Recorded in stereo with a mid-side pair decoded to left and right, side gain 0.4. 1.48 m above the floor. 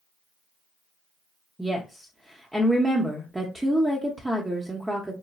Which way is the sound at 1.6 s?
10° right.